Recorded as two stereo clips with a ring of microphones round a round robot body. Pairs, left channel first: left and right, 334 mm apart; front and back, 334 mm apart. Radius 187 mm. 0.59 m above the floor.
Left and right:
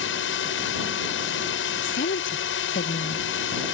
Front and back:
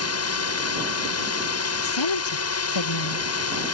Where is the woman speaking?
20° left.